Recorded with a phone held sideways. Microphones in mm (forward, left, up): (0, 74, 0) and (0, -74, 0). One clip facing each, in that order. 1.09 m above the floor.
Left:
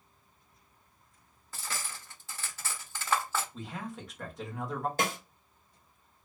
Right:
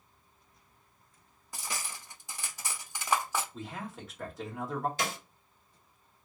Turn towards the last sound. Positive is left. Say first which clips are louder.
# left 3 dB
turn(degrees=55)  # may be behind; listen again after turning